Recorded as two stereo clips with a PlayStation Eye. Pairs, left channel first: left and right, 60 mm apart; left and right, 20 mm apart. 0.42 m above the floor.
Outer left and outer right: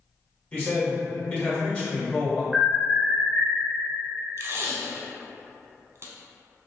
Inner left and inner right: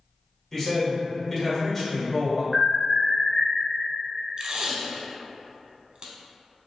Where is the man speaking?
25° left (ahead or behind), 1.1 m.